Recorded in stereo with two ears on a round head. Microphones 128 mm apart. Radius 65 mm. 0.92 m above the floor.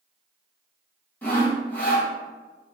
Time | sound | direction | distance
1.2 | sawing | 10° left (ahead or behind) | 0.8 m